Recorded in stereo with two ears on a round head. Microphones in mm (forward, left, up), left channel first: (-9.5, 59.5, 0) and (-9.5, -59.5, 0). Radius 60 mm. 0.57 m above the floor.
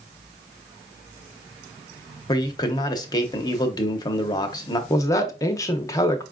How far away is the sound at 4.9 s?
About 0.6 m.